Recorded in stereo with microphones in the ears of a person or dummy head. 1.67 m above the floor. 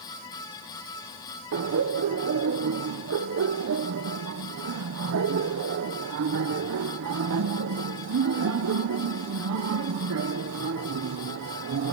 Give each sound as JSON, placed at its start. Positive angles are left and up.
{"t": 1.5, "sound": "laughter", "side_deg": -80, "distance_m": 1.0}